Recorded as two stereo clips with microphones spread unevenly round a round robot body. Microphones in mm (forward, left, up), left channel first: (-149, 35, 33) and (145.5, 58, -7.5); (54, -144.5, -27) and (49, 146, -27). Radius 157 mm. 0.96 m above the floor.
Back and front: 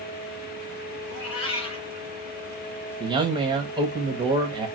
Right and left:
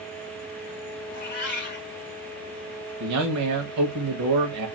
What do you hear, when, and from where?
1.1 s a cat meowing: 145° right, 1.6 m
3.0 s a man speaking: 70° left, 1.1 m